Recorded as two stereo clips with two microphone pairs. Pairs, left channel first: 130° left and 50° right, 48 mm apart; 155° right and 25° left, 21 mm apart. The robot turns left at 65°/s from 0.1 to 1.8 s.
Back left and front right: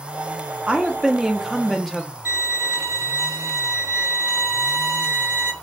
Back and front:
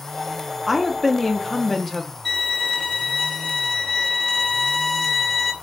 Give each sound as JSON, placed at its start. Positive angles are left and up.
{"t": 0.7, "sound": "a woman speaking", "azimuth_deg": -80, "distance_m": 0.5}
{"t": 2.2, "sound": "a violin", "azimuth_deg": -90, "distance_m": 2.5}